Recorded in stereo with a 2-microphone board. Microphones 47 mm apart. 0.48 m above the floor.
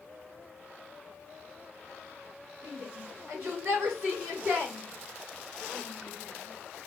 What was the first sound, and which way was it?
A shout, 55° right (ahead or behind).